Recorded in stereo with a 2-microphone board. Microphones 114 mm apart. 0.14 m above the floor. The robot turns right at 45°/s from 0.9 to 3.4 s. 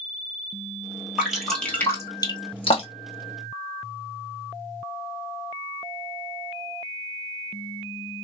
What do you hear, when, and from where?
1.2 s dripping: 10° right (ahead or behind), 1.2 m; by 3.1 s 70° left (ahead or behind), 1.2 m